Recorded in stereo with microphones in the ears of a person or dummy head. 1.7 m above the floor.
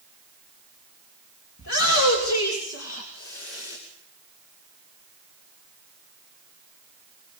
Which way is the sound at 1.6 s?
75° left (ahead or behind).